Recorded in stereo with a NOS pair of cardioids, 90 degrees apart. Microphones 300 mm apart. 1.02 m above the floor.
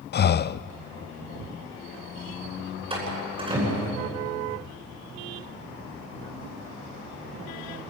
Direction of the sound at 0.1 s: 35° left.